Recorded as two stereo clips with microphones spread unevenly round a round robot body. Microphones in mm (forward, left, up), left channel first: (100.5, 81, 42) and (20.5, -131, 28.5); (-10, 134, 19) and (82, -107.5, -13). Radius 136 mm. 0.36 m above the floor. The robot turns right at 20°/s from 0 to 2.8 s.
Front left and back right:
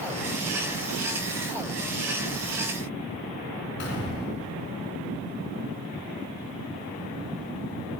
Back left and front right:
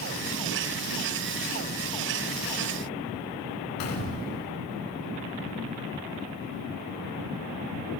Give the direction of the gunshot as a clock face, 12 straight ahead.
8 o'clock.